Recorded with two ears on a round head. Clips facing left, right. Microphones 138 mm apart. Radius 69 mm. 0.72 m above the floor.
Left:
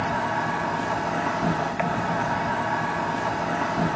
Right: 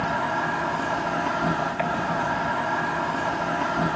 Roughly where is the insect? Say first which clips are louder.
Even; centre.